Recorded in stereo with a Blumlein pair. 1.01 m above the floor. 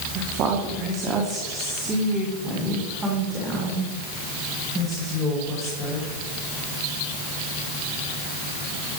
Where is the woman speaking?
35° right, 1.6 m; by 6.1 s 10° right, 4.5 m.